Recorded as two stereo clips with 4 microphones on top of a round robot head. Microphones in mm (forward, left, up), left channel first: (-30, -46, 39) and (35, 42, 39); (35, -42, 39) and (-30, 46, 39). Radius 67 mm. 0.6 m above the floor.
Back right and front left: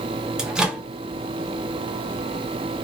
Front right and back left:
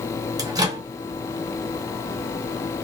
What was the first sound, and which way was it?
A microwave, 135° left.